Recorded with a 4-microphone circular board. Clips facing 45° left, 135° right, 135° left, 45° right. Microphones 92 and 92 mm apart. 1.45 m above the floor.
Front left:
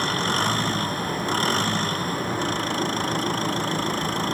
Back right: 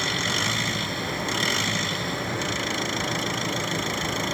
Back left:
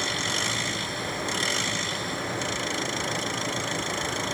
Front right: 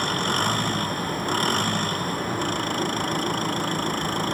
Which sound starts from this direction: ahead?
An engine running, at 0.0 s.